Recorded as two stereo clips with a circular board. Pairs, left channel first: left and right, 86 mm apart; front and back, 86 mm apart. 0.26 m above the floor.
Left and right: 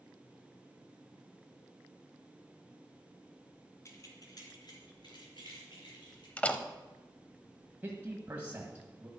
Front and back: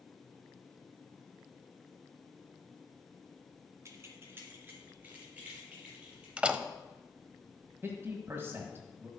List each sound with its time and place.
3.9 s keys jangling: 135° left, 1.7 m; by 6.3 s 105° left, 5 m
6.4 s a door slam: 130° left, 0.6 m
7.8 s a man speaking: 140° right, 1.3 m